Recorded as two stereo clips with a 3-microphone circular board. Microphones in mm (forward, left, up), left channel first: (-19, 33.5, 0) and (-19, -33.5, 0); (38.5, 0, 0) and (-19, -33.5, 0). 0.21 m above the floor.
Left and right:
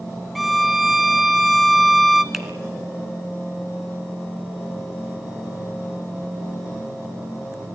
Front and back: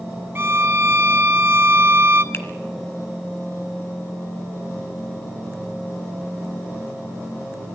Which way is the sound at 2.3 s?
5° right.